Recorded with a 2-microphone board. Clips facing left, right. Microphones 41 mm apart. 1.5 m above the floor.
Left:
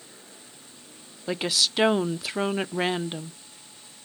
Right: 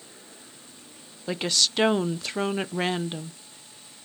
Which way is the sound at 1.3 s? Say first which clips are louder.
Even; 5° left (ahead or behind).